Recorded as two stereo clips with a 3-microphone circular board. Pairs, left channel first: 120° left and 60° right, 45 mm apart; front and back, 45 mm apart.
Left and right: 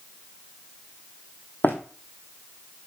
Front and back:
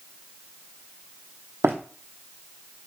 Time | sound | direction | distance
1.6 | running footsteps | 155° left | 0.9 m